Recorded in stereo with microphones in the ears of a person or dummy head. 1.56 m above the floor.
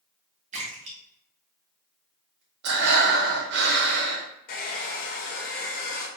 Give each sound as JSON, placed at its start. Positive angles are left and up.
{"t": 0.5, "sound": "a splash", "side_deg": -35, "distance_m": 1.4}
{"t": 2.6, "sound": "breathing", "side_deg": -70, "distance_m": 1.0}
{"t": 4.5, "sound": "a hair dryer", "side_deg": 55, "distance_m": 1.0}